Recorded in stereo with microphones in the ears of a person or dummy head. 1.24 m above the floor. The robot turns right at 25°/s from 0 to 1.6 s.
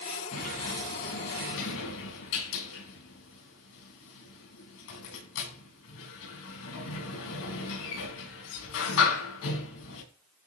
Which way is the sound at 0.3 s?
40° left (ahead or behind).